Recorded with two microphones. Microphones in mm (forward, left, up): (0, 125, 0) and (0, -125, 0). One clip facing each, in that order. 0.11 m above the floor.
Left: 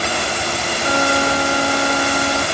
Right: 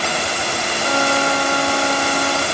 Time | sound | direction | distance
0.8 | a violin | 5° left (ahead or behind) | ?